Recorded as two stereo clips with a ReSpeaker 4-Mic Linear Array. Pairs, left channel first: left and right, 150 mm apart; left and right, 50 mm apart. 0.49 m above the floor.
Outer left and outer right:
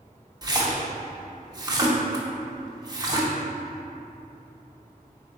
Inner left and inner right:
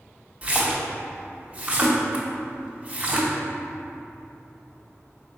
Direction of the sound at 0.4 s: 25° right (ahead or behind).